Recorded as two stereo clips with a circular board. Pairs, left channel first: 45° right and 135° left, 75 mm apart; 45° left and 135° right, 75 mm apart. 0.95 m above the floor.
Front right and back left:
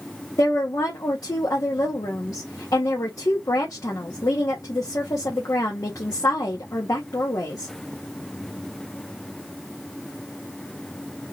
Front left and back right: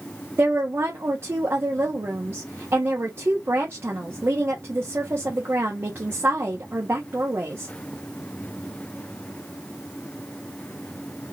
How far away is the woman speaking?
About 1.2 m.